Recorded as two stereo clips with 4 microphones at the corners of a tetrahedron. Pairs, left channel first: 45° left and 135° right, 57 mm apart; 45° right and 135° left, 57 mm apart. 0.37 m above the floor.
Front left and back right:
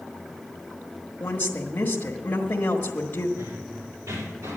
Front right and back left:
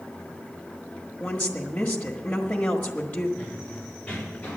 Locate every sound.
1.2 s a woman speaking: 5° left, 1.3 m
3.4 s running footsteps: 120° right, 5 m; by 4.6 s 115° right, 4.5 m